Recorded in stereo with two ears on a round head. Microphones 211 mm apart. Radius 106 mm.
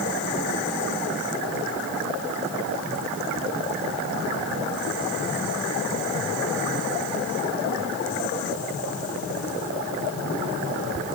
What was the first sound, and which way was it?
Only background noise.